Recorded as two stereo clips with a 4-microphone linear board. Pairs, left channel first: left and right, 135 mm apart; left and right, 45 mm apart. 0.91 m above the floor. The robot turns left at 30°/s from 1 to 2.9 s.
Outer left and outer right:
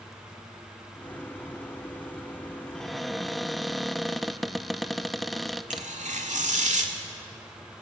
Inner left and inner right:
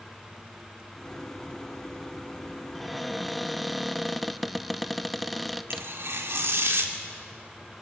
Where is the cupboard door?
5° left (ahead or behind), 0.6 m; by 5.9 s centre (ahead or behind), 0.6 m.